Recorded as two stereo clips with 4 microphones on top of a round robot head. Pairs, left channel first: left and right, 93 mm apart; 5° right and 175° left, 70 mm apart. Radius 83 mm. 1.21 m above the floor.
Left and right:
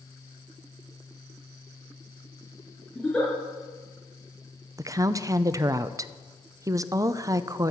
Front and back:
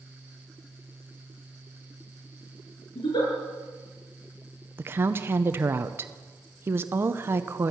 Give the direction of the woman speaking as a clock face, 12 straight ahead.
5 o'clock.